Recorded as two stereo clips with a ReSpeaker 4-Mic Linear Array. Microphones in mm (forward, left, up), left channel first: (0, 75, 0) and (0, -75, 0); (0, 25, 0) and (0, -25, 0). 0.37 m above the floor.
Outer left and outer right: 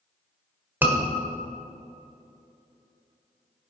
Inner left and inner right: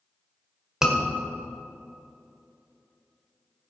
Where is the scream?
15° right (ahead or behind), 1.5 m.